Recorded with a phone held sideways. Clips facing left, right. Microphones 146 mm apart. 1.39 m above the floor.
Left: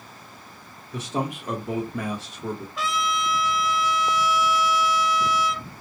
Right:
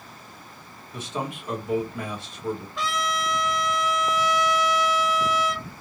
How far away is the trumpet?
About 0.6 m.